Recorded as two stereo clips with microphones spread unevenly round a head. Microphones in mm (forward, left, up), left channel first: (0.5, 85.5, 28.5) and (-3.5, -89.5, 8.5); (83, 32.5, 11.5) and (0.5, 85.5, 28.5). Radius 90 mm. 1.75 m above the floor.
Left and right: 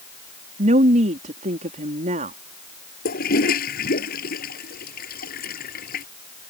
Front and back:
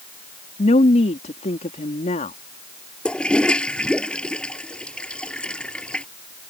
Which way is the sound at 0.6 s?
40° right.